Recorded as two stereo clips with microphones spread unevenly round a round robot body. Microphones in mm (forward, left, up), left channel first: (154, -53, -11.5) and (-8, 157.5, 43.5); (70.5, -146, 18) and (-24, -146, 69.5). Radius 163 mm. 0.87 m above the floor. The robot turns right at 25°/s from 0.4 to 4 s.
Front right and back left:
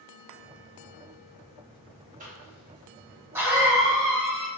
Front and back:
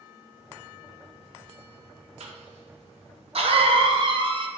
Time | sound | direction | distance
2.2 | a cough | 170° right | 0.6 m